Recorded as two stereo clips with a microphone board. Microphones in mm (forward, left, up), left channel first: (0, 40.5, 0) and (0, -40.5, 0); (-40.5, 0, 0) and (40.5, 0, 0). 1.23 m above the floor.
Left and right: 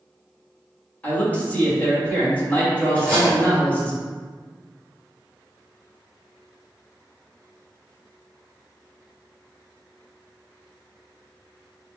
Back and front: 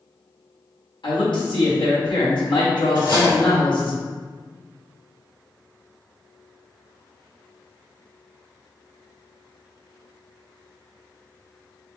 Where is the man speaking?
160° left, 1.5 m.